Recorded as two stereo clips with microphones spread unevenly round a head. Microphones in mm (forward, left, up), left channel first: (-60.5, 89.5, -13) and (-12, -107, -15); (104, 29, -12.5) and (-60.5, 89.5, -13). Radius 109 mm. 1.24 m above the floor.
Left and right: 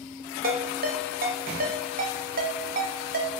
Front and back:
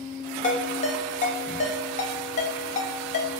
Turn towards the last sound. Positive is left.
turn(degrees=-50)